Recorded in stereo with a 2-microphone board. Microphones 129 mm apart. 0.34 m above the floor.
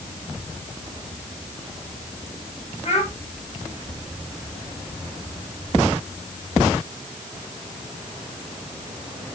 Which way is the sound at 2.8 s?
55° left (ahead or behind).